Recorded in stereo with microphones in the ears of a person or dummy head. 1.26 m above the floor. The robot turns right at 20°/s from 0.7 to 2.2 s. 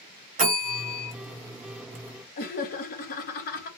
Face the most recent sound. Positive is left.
turn(degrees=45)  # may be behind; listen again after turning